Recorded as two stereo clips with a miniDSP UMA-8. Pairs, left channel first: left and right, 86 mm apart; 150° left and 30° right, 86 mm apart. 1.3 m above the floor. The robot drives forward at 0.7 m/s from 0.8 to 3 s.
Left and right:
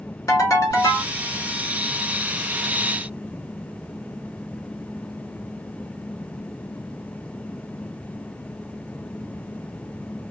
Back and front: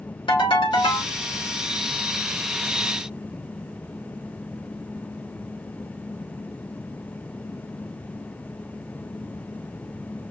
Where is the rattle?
I don't hear a rattle.